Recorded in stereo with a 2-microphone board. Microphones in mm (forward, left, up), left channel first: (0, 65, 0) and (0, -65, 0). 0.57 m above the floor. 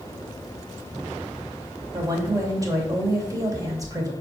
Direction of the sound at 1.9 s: 25° right (ahead or behind).